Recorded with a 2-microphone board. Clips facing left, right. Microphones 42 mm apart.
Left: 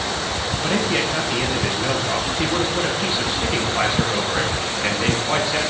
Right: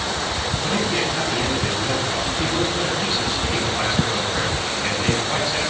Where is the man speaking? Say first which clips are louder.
Left 2 dB; 30° left (ahead or behind), 2 m.